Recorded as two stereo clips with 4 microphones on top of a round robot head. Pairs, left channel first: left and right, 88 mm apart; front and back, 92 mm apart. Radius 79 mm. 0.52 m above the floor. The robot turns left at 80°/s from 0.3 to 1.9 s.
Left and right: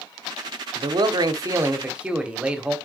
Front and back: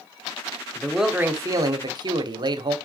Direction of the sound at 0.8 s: 75° right.